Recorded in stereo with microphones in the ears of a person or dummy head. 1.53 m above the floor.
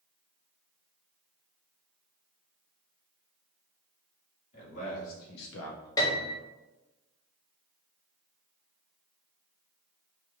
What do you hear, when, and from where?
4.5 s a man speaking: 45° left (ahead or behind), 2.0 m; by 5.9 s 60° left (ahead or behind), 0.5 m
6.0 s a piano: 20° left (ahead or behind), 0.9 m